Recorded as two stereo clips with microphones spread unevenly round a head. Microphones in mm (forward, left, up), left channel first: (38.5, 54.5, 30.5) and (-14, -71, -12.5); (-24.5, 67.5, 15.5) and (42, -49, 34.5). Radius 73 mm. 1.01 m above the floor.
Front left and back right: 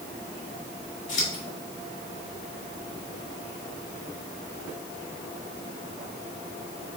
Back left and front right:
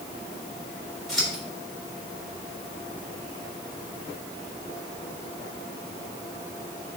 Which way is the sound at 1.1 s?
35° left.